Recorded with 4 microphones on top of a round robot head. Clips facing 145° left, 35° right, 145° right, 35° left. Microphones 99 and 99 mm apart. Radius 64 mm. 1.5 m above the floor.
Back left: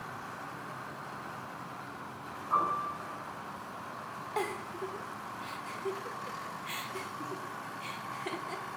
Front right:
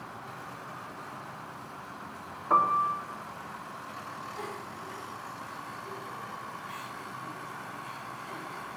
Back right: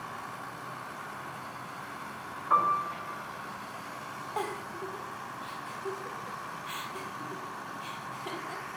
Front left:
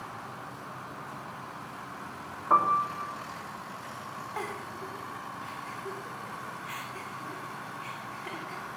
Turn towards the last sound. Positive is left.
turn(degrees=145)